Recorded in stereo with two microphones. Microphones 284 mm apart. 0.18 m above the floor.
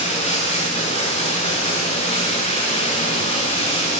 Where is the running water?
20° left (ahead or behind), 3.5 m.